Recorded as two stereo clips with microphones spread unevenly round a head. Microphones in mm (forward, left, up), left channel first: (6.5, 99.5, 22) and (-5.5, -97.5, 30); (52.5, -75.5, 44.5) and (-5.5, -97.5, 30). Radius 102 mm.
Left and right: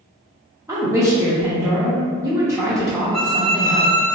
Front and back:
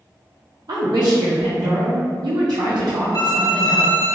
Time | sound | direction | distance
0.7 | a woman speaking | 170° right | 0.6 m
3.1 | a violin | 5° right | 1.2 m